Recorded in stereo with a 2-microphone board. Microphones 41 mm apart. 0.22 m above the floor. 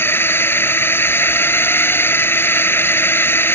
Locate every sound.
0.0 s a drone: 70° left (ahead or behind)